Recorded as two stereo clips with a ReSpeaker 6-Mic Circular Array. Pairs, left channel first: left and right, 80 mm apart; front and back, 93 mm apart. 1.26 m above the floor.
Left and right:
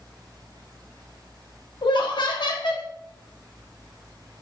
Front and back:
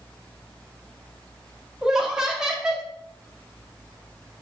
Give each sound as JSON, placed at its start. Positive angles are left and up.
{"t": 1.8, "sound": "laughter", "azimuth_deg": 95, "distance_m": 0.6}